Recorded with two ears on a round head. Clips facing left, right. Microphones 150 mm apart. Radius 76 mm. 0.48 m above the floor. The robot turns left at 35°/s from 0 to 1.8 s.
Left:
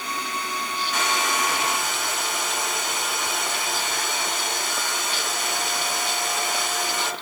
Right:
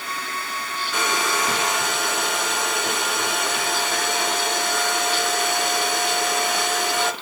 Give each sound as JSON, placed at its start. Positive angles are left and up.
{"t": 0.9, "sound": "a hair dryer", "azimuth_deg": -90, "distance_m": 4.0}